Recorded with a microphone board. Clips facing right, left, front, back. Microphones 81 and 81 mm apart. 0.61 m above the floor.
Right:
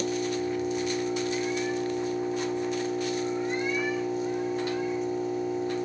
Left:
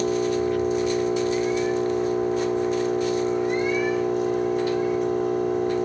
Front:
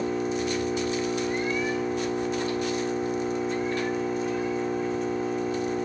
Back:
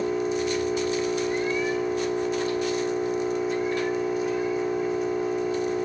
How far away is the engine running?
About 2.5 m.